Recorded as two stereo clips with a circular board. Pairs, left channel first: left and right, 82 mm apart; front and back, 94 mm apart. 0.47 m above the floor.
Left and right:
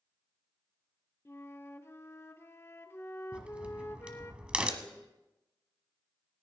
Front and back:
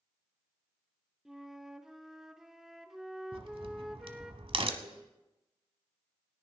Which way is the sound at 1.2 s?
100° left.